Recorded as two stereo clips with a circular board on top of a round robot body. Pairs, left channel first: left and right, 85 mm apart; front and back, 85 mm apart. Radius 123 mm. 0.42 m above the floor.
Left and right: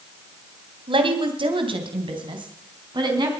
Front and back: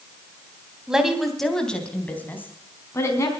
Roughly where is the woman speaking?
Right.